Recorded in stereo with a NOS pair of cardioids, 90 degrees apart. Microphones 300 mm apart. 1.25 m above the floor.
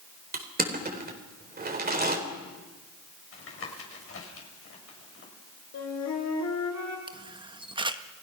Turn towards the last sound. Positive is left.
turn(degrees=-15)